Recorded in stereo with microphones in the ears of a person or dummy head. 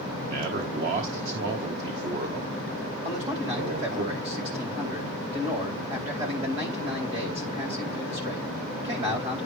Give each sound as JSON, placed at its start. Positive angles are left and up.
{"t": 0.2, "sound": "a man speaking", "side_deg": -40, "distance_m": 1.3}
{"t": 3.0, "sound": "a man speaking", "side_deg": -30, "distance_m": 4.0}